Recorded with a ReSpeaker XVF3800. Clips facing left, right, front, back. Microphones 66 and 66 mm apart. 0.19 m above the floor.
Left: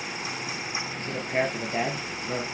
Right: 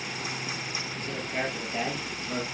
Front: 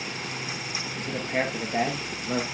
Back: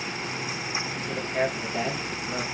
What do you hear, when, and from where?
1.0 s a man speaking: 40° left, 4 m